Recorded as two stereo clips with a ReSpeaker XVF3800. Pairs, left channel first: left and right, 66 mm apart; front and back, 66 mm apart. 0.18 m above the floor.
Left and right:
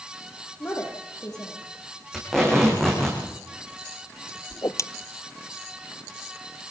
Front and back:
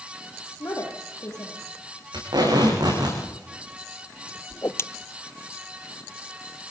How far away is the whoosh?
About 0.8 m.